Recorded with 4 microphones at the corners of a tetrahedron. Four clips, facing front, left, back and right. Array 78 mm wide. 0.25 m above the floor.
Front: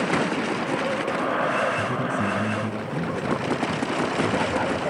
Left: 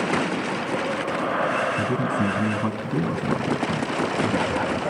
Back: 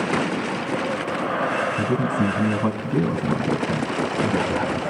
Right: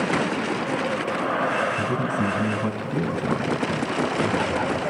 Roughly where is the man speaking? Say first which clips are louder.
Left 1 dB, back 3 dB; behind.